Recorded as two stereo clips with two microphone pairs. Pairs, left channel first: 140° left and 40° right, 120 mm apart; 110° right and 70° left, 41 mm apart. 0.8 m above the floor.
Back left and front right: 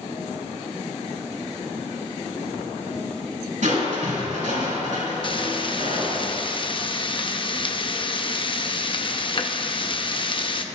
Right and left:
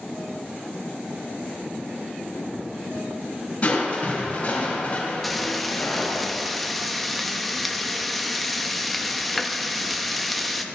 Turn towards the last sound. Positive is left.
turn(degrees=165)